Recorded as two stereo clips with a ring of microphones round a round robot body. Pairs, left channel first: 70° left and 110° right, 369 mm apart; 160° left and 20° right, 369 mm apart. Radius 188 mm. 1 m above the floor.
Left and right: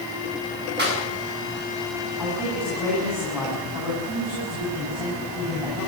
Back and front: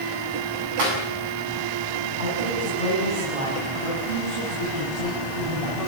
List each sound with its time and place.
0.8 s a clap: 50° right, 8 m
2.2 s a man speaking: 25° right, 9 m